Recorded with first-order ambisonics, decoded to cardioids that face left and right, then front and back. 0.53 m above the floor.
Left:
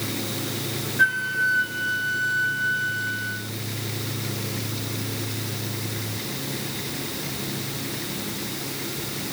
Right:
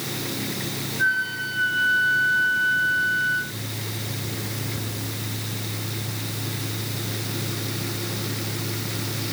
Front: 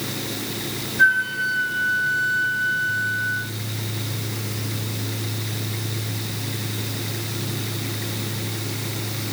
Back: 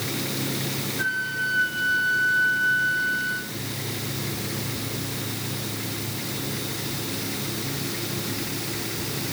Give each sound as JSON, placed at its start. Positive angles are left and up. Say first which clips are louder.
{"t": 1.0, "sound": "a flute", "louder": "left 2 dB, front 9 dB", "azimuth_deg": 65, "distance_m": 2.5}